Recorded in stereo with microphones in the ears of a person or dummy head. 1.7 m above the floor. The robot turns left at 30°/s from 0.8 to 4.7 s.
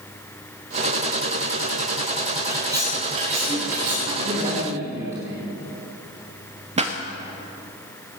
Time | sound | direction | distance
2.5 | cutlery clinking | 15° right | 4 m
4.1 | a man speaking | 50° right (ahead or behind) | 3 m
6.8 | a pop | 35° right (ahead or behind) | 1.0 m